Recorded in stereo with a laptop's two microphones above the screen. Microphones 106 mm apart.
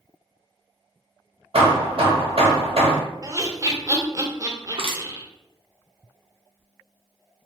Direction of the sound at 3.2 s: 30° right (ahead or behind).